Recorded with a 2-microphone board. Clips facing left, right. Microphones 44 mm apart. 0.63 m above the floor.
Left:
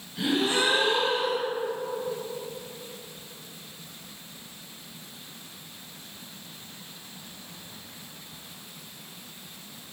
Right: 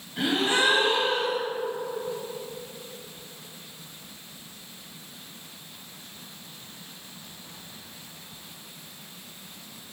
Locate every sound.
0.2 s a gasp: 45° right (ahead or behind), 1.4 m